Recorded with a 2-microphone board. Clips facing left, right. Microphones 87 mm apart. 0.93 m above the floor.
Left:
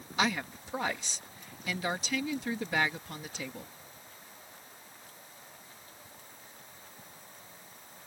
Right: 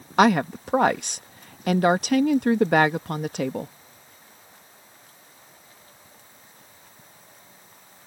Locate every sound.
0.2 s a woman speaking: 65° right (ahead or behind)